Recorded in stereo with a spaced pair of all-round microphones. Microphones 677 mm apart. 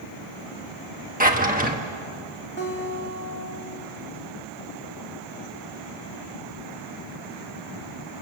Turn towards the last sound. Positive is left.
turn(degrees=15)  # may be behind; listen again after turning